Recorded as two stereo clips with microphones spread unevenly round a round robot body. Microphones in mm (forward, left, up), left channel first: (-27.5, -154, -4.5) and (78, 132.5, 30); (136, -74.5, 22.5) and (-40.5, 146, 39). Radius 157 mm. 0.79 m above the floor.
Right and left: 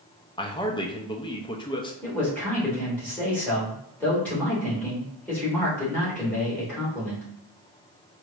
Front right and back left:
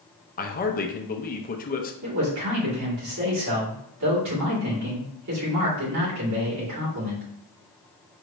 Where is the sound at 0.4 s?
60° right, 0.6 m.